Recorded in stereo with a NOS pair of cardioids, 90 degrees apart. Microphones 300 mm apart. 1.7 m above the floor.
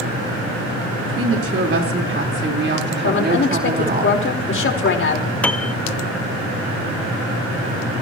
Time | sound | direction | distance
1.0 | a woman speaking | 50° right | 5 m
3.0 | a woman speaking | 40° left | 5 m
5.4 | a piano | 5° left | 1.0 m